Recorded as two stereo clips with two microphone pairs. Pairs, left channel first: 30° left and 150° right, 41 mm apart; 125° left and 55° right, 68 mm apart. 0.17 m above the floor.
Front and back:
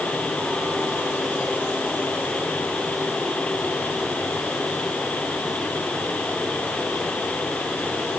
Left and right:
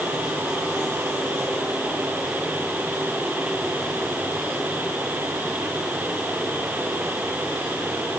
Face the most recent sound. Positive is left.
No sound to turn to.